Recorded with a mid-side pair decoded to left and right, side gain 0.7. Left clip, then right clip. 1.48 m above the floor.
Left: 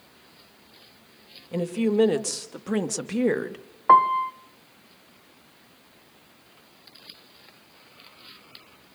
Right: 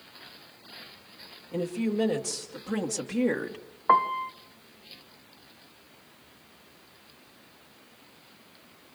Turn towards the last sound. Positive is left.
turn(degrees=10)